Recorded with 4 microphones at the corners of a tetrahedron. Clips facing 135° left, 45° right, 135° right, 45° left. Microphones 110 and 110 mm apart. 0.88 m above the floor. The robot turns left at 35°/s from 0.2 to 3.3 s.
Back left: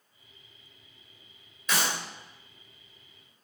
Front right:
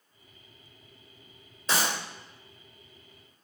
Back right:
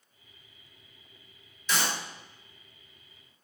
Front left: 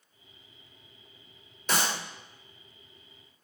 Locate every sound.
1.7 s a clap: 10° left, 2.5 m; by 1.9 s straight ahead, 2.5 m